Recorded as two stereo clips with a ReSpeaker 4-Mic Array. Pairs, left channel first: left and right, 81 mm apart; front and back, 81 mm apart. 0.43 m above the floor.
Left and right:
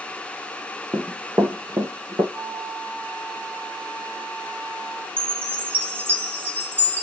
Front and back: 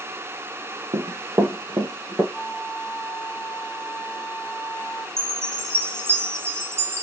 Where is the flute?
80° right, 0.9 m.